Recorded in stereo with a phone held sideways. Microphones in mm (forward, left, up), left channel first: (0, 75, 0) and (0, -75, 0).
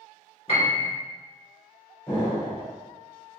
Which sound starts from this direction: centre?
An explosion, at 2.1 s.